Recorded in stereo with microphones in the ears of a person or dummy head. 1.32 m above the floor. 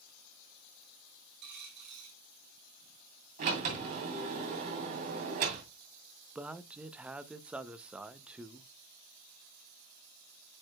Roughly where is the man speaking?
Centre.